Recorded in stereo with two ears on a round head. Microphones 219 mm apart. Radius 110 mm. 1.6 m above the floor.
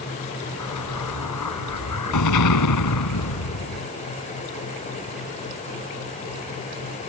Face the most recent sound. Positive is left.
turn(degrees=85)